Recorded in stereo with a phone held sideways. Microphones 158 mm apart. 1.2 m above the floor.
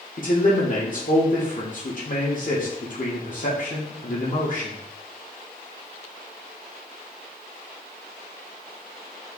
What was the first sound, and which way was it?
A man speaking, 55° left (ahead or behind).